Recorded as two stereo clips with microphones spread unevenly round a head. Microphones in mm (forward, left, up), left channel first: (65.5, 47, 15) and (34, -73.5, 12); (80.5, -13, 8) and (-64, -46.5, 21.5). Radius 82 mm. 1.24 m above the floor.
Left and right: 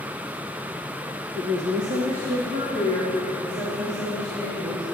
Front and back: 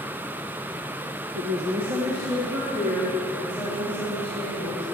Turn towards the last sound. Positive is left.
turn(degrees=-90)